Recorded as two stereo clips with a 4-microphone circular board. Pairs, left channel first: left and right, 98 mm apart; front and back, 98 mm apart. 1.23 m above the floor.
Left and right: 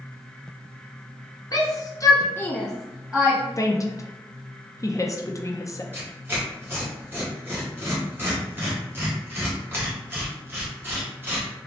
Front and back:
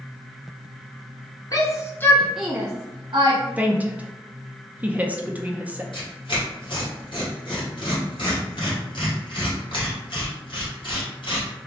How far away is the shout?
About 0.9 m.